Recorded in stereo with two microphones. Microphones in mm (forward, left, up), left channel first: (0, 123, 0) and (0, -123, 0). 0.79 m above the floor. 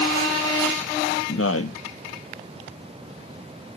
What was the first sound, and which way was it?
A man speaking, 65° left (ahead or behind).